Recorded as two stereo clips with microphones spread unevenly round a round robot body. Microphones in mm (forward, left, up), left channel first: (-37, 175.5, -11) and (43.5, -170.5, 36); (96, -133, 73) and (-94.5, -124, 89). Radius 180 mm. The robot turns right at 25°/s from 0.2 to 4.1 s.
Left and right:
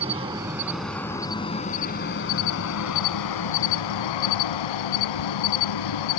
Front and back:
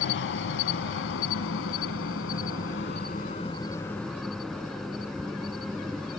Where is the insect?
10° right; by 6.2 s 90° left.